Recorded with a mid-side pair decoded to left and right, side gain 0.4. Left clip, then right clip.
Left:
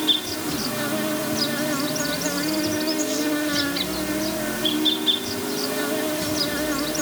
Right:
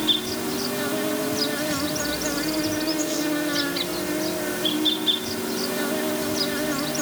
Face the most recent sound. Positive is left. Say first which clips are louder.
# left 1 dB
turn(degrees=10)